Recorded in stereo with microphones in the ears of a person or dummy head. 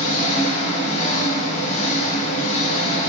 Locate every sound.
0.0 s an engine running: 40° left (ahead or behind), 6.5 m